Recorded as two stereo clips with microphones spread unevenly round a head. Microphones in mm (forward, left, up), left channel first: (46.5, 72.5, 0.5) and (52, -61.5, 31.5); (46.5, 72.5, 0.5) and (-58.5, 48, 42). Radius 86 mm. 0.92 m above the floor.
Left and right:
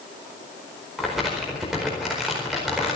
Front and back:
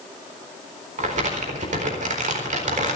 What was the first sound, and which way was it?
Crumpling, straight behind.